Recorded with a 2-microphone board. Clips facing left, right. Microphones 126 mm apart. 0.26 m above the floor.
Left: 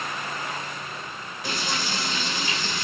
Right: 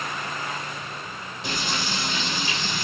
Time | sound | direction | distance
1.4 | frying | 25° right (ahead or behind) | 3 m